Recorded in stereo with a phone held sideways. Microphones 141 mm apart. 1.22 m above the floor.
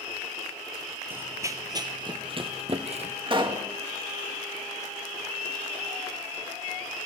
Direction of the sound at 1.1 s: 15° right (ahead or behind).